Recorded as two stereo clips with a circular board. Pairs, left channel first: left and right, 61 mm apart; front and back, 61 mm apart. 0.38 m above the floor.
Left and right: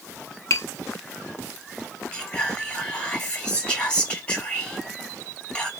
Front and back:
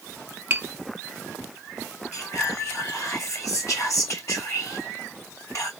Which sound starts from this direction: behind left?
Tapping, at 0.5 s.